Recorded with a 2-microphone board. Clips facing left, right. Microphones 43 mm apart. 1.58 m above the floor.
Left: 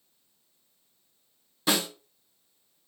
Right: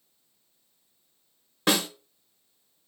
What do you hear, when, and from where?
1.7 s a snare drum: 45° right (ahead or behind), 0.8 m